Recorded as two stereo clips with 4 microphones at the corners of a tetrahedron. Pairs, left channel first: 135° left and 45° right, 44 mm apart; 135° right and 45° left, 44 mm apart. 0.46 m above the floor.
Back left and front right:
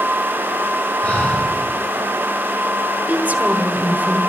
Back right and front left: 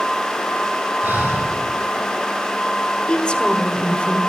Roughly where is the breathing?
Left.